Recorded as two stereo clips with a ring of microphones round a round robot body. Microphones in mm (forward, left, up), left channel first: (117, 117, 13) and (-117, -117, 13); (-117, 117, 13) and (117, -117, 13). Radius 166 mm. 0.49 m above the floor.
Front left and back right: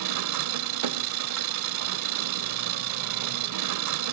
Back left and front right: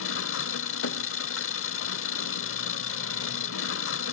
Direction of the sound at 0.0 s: 175° right.